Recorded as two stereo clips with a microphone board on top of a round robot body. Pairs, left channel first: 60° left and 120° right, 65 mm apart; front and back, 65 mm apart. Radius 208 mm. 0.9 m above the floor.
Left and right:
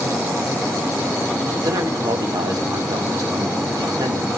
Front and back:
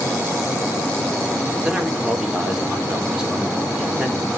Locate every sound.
1.6 s a man speaking: 100° right, 3 m